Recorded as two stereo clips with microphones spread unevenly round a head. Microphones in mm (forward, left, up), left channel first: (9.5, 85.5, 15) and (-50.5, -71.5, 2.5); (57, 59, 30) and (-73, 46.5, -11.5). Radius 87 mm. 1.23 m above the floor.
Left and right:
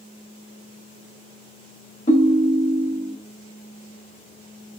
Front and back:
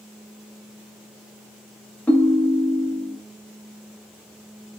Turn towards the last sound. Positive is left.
turn(degrees=55)